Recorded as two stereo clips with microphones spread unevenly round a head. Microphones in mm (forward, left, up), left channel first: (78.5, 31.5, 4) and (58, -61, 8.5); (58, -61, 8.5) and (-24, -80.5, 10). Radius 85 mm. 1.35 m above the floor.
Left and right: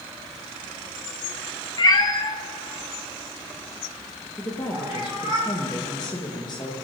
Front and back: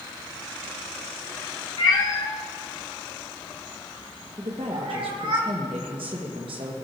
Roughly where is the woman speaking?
Behind left.